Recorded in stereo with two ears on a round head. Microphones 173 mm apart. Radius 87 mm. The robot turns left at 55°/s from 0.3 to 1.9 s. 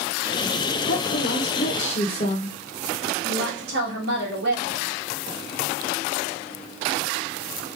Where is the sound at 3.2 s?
65° right (ahead or behind), 1.8 m.